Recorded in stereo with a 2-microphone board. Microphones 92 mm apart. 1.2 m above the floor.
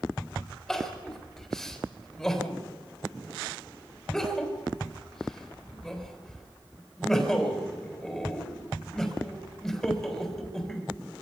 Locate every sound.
0.7 s crying: 5° left (ahead or behind), 4 m